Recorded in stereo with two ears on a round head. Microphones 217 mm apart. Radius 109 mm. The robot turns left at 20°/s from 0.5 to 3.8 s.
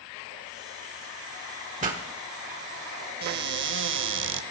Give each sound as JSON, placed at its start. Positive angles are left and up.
{"t": 1.8, "sound": "a pop", "side_deg": -35, "distance_m": 1.5}
{"t": 3.2, "sound": "a cupboard door", "side_deg": -45, "distance_m": 0.6}